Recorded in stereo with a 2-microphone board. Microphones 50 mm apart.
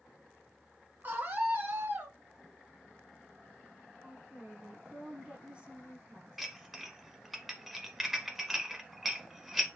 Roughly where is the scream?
Right.